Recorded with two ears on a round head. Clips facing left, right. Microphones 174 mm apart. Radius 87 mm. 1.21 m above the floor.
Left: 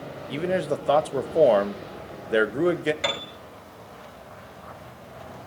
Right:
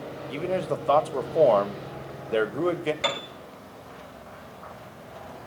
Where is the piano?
5° left (ahead or behind), 5 m.